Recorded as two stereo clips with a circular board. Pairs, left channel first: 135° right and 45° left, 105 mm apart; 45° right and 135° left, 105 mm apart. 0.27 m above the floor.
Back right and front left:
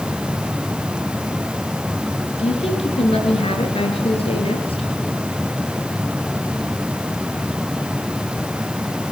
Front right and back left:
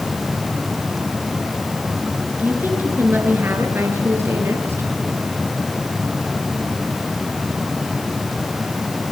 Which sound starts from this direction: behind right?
A woman speaking, at 2.4 s.